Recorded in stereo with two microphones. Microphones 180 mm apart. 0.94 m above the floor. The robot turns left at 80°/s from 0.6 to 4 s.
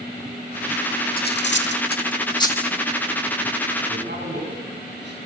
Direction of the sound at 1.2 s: 55° left (ahead or behind).